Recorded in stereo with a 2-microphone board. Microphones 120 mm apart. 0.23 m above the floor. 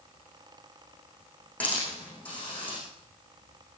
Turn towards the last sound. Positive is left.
turn(degrees=10)  # may be behind; listen again after turning